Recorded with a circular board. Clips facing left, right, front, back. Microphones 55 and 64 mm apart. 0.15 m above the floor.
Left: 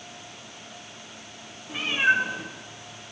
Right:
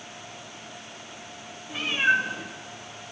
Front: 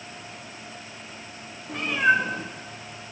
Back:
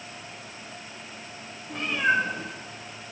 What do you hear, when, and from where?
1.7 s a cat meowing: 15° left, 9 m